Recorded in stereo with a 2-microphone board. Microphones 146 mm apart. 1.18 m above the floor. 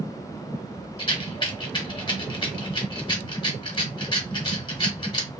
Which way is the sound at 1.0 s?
35° left (ahead or behind).